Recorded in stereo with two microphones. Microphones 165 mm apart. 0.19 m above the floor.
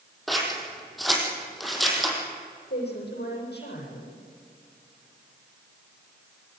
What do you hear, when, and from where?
0.3 s scissors: centre (ahead or behind), 4.5 m
2.7 s a woman speaking: 80° left, 8 m